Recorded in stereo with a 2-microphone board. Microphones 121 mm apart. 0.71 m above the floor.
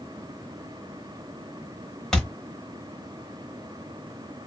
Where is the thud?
5° left (ahead or behind), 1.1 m.